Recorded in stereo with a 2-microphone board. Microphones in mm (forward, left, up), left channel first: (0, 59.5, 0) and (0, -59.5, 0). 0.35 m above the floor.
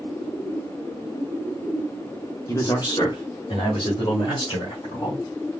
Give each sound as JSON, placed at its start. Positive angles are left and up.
{"t": 2.5, "sound": "a man speaking", "side_deg": 25, "distance_m": 1.0}